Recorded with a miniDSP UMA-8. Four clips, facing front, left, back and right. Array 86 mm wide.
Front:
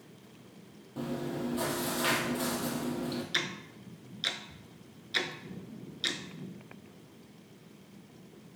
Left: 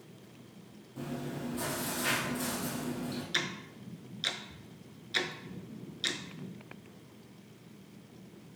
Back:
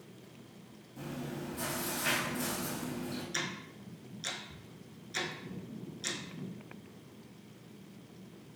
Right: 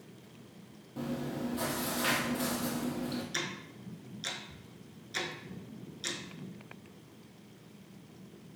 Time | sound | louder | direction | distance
1.0 | chewing | right 3 dB, front 6 dB | 25° right | 1.3 m
3.3 | ticking | left 2 dB, front 2 dB | 40° left | 0.6 m